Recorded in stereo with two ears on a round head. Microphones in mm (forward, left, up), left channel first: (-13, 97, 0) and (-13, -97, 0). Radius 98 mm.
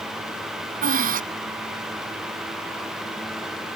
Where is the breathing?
40° right (ahead or behind).